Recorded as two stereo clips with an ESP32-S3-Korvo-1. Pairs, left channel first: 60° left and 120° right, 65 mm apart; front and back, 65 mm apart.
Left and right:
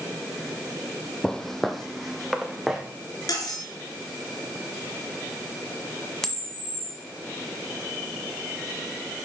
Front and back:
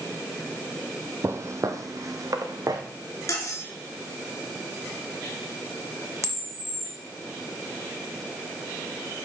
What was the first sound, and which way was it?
Footsteps, 140° left.